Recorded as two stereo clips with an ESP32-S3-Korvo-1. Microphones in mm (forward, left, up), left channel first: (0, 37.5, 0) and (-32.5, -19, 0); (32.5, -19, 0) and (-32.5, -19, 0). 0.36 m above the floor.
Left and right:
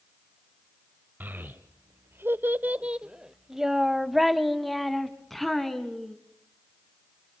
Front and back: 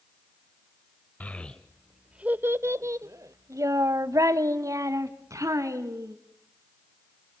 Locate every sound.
1.2 s a child speaking: 65° right, 0.7 m; by 6.2 s 145° left, 2 m